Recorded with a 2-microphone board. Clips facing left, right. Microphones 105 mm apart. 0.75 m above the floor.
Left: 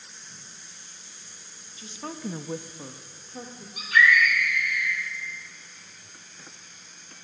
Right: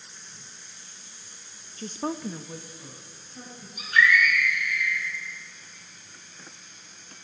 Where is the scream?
80° left, 6.5 m.